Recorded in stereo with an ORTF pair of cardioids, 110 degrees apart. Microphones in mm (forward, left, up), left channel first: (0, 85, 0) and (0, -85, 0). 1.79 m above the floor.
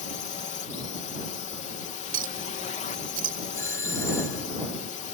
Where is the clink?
55° right.